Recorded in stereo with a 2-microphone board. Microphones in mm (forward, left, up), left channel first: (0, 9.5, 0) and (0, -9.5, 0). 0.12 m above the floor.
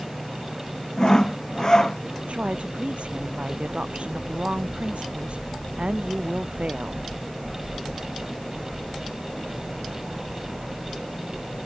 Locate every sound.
1.0 s sawing: 30° left (ahead or behind)
2.3 s a woman speaking: 70° right (ahead or behind)